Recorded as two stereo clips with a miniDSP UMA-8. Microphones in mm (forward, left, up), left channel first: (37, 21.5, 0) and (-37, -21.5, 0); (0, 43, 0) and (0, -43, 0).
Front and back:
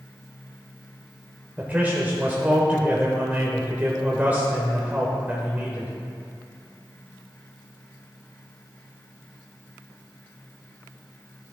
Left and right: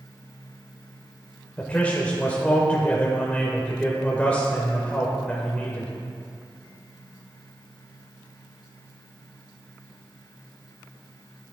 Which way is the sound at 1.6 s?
150° left.